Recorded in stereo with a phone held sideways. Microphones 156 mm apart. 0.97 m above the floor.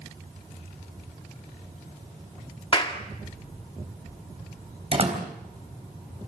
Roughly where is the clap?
Left.